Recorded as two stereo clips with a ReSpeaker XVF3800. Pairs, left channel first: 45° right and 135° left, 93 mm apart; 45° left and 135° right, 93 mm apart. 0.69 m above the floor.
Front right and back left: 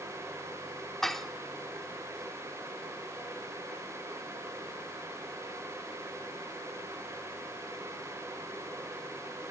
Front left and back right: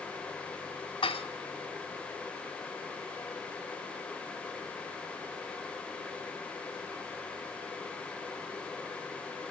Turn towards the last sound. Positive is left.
turn(degrees=40)